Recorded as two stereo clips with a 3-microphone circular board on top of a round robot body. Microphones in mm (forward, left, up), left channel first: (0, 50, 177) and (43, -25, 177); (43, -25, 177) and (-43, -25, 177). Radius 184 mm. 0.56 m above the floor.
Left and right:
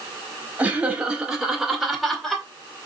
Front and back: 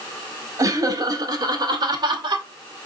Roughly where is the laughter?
Behind right.